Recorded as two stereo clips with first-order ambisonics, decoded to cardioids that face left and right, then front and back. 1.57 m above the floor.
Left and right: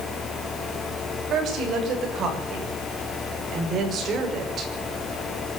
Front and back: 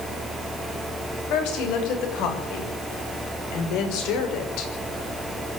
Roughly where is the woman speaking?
Ahead right.